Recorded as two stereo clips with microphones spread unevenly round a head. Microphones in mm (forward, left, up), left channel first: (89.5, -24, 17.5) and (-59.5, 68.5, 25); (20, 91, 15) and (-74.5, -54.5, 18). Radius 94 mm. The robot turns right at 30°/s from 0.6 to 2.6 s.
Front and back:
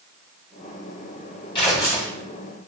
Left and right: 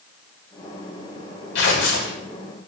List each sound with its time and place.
1.6 s tearing paper: 30° left, 1.1 m; by 2.1 s 45° left, 1.1 m